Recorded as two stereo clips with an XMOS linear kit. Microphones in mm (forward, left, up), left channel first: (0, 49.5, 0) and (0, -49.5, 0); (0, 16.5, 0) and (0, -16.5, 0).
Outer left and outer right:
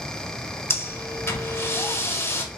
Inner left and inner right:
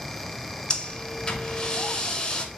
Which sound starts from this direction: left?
Breathing, at 0.7 s.